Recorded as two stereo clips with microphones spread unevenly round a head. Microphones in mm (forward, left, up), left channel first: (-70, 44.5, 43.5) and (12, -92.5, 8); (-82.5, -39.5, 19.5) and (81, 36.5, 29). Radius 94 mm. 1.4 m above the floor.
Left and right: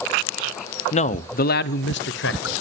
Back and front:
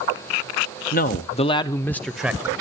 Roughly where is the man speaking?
Behind.